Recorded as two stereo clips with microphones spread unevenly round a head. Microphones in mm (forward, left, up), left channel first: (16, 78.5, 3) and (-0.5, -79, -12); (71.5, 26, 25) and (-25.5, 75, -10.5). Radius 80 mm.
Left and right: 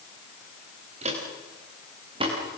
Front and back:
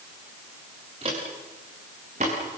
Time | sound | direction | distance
1.0 | footsteps | 150° right | 8 m